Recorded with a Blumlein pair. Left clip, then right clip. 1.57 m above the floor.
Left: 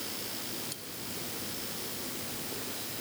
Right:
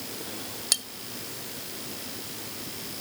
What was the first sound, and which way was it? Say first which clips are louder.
Cutlery clinking: right 17 dB; 40° right.